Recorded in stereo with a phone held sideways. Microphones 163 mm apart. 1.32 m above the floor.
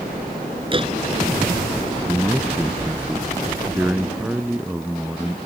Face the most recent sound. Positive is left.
turn(degrees=-10)  # may be behind; listen again after turning